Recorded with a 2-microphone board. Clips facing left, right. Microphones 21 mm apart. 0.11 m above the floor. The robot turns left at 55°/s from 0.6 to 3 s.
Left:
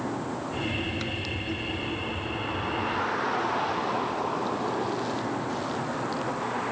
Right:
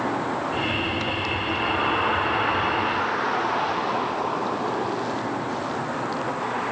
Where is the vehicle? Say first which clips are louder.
Right 6 dB; 35° right; by 6.7 s 170° right.